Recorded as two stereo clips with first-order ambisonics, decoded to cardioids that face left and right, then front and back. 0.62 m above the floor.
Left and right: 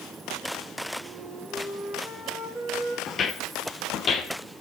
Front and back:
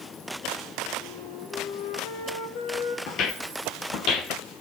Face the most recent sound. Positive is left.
turn(degrees=30)